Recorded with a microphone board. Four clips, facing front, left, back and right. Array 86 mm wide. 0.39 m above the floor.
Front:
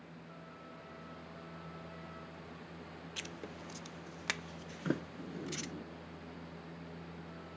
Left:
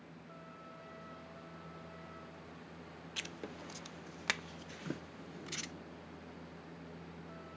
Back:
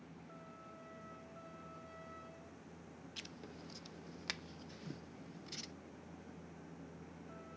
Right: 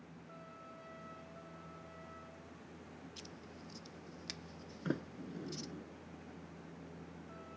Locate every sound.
3.2 s writing: 65° left
4.8 s a sliding door: 20° right